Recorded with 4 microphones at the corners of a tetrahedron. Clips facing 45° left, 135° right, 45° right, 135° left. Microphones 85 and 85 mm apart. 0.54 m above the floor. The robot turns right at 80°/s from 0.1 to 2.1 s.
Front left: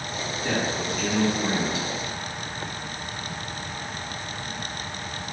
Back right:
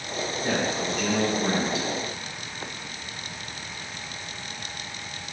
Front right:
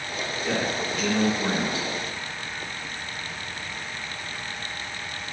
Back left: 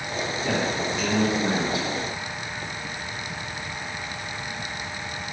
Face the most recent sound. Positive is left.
turn(degrees=-65)